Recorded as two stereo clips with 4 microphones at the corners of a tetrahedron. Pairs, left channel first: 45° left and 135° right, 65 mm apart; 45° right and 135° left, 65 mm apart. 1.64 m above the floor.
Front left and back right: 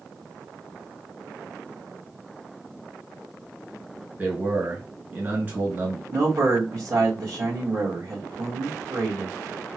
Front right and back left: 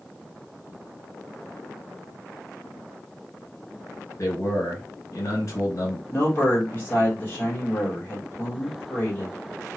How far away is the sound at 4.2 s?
About 1.9 m.